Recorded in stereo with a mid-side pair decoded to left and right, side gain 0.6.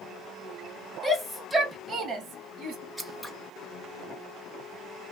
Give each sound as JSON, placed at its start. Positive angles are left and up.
{"t": 1.0, "sound": "a shout", "azimuth_deg": 0, "distance_m": 0.9}
{"t": 3.0, "sound": "scissors", "azimuth_deg": 0, "distance_m": 0.9}